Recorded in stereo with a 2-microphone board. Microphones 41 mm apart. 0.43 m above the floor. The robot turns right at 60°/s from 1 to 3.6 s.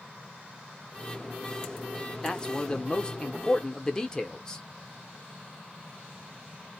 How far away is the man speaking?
About 0.8 m.